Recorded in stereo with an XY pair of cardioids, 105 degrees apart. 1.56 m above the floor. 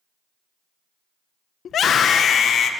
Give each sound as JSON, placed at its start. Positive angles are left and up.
{"t": 1.6, "sound": "a scream", "azimuth_deg": 55, "distance_m": 1.0}